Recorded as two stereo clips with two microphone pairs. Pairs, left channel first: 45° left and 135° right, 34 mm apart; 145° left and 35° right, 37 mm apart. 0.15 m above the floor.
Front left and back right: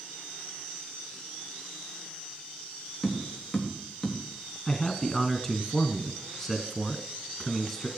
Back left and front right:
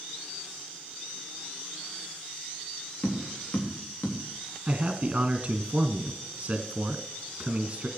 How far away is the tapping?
About 4 m.